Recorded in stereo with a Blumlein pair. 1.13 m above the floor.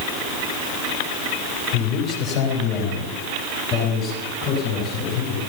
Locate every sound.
1.7 s a man speaking: 25° left, 4 m; by 5.4 s 20° left, 9.5 m